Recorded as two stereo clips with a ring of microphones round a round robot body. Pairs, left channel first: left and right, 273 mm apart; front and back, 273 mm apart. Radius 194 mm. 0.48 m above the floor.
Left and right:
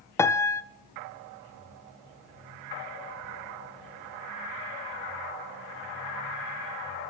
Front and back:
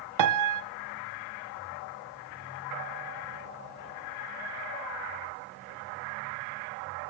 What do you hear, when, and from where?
0.2 s a piano: 170° left, 1.3 m